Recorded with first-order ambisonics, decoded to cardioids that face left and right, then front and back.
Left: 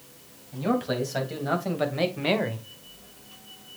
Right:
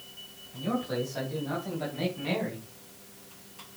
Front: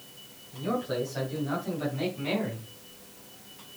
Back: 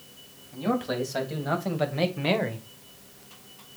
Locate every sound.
0.5 s a man speaking: 135° left, 3.5 m